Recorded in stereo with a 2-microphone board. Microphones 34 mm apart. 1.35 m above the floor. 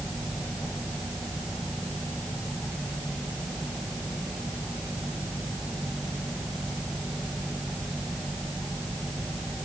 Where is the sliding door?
I don't hear a sliding door.